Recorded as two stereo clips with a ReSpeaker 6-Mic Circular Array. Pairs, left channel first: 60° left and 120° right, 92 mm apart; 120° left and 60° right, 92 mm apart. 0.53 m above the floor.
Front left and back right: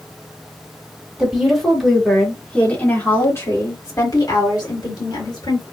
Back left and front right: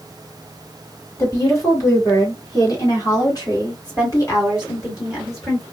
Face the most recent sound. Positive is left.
turn(degrees=70)